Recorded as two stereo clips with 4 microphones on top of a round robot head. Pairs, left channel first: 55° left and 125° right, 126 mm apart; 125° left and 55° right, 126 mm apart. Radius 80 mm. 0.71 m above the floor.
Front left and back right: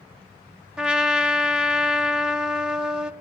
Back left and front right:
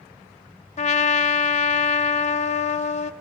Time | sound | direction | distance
0.8 | a trumpet | 155° left | 1.3 m